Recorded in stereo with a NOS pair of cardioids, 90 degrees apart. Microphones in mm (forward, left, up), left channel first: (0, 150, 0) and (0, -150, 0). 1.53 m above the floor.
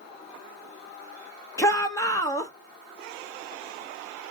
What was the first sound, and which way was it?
A shout, 10° left.